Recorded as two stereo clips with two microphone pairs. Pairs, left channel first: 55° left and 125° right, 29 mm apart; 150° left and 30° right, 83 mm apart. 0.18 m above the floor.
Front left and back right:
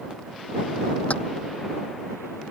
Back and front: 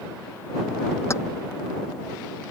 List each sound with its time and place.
1.1 s keys jangling: 90° left